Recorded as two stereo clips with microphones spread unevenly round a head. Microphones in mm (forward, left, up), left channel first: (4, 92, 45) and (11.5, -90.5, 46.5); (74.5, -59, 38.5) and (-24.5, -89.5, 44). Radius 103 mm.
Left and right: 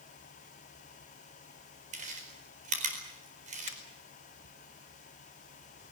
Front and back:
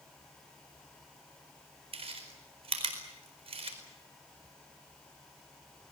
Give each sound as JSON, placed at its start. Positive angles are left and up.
{"t": 1.9, "sound": "chewing", "azimuth_deg": -140, "distance_m": 4.5}
{"t": 3.7, "sound": "a finger snap", "azimuth_deg": 40, "distance_m": 2.5}